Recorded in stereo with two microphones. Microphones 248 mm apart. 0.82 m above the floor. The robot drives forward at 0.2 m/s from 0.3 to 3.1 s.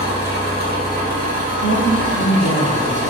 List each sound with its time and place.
0.0 s an engine running: 45° right (ahead or behind), 1.0 m; by 3.1 s 30° right (ahead or behind), 1.5 m
1.6 s a woman speaking: 50° right (ahead or behind), 1.6 m; by 3.1 s 55° right (ahead or behind), 1.5 m